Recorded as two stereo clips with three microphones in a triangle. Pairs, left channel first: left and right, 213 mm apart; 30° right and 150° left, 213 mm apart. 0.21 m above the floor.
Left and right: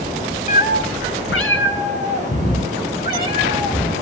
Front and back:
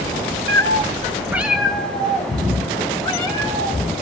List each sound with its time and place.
0.5 s a cat meowing: 140° left, 0.7 m; by 3.9 s 40° left, 4 m